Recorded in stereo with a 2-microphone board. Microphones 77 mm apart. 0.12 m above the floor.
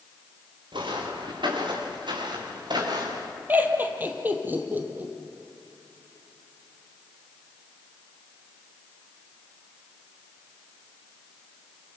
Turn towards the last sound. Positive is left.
turn(degrees=-25)  # may be behind; listen again after turning